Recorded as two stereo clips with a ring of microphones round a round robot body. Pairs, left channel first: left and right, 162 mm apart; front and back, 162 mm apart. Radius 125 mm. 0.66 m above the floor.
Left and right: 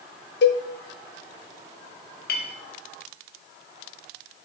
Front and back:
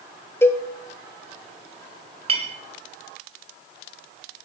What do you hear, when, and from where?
0.4 s a cowbell: 75° left, 0.6 m
2.3 s a clink: 125° left, 0.8 m